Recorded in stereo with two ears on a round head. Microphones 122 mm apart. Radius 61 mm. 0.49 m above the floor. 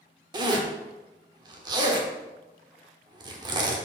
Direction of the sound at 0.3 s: 30° right (ahead or behind).